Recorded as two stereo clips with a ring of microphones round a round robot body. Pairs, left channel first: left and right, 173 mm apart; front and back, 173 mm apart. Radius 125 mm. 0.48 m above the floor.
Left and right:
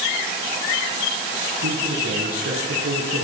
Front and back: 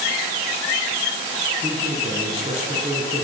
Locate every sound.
1.6 s a man speaking: 105° right, 7.5 m; by 3.2 s 115° right, 7 m